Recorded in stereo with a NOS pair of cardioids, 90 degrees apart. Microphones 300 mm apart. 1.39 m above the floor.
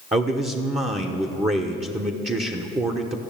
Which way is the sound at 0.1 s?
20° right.